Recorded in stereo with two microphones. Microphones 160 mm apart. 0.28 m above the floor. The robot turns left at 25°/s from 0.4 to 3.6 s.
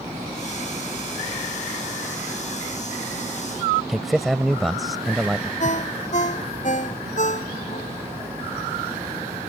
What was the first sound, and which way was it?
A man speaking, centre (ahead or behind).